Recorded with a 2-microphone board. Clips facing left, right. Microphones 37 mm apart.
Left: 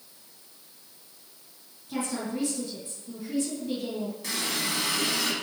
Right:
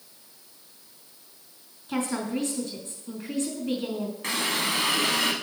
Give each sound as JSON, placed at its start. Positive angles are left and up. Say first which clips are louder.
{"t": 1.9, "sound": "a woman speaking", "louder": "right 3 dB", "side_deg": -55, "distance_m": 2.5}
{"t": 4.2, "sound": "a running tap", "louder": "right 5 dB", "side_deg": -45, "distance_m": 1.3}